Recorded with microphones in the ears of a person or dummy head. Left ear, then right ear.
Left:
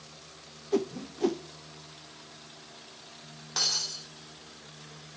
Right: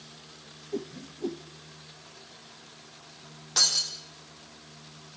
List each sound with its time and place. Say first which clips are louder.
0.7 s a whoosh: left 7 dB; 50° left (ahead or behind), 0.6 m
3.6 s breaking glass: right 4 dB; 5° right (ahead or behind), 6.5 m